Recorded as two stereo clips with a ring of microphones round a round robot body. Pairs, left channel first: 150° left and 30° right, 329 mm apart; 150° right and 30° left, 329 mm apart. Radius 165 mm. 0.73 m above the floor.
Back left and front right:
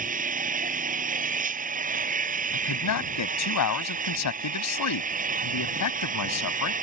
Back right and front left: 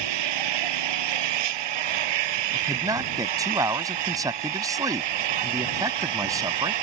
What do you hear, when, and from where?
0.0 s an engine running: 35° left
2.5 s a man speaking: 110° left